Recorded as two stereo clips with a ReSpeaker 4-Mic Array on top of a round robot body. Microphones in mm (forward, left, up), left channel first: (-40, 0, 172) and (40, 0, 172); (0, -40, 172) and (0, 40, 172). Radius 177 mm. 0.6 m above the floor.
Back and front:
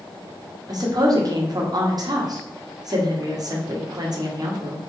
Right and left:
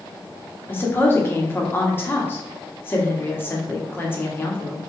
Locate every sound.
0.7 s a woman speaking: 30° right, 1.5 m